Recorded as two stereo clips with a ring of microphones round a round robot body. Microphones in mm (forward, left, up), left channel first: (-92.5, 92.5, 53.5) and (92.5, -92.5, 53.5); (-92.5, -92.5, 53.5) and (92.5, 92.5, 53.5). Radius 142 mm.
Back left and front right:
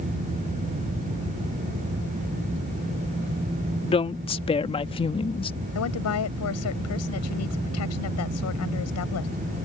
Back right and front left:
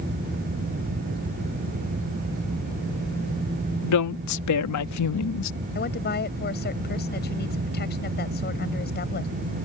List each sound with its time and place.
3.8 s a woman speaking: 155° right
5.8 s a woman speaking: 170° left